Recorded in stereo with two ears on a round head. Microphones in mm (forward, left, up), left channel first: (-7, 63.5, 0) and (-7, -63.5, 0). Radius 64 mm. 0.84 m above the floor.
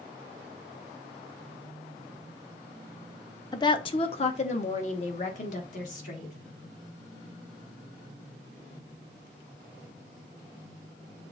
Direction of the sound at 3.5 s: 30° left (ahead or behind).